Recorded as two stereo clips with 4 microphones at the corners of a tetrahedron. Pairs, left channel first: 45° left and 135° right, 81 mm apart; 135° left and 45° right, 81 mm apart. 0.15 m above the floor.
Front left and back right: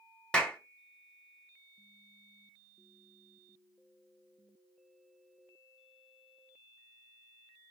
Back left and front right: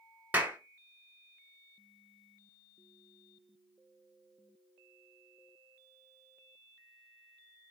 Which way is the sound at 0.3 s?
20° right.